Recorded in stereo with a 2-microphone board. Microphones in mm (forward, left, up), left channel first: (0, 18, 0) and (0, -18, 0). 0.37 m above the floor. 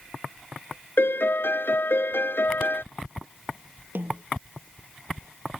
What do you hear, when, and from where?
1.0 s a piano: 85° left
4.0 s a snare drum: 65° right (ahead or behind)